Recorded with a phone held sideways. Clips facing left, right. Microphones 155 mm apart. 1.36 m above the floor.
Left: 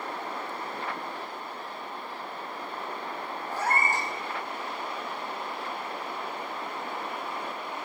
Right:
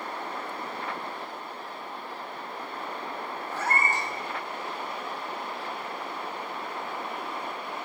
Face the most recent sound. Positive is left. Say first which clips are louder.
# left 1 dB
turn(degrees=15)  # may be behind; listen again after turning